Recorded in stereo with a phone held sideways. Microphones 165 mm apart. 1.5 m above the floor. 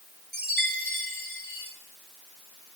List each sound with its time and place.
0.3 s a chime: 75° right (ahead or behind), 5.5 m